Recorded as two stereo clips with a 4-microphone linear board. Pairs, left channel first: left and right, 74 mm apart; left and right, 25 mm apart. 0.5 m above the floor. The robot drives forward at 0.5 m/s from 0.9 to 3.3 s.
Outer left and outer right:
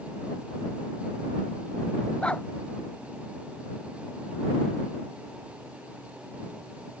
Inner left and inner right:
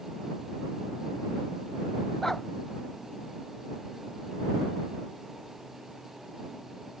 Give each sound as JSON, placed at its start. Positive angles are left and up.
{"t": 2.2, "sound": "a dog barking", "side_deg": 15}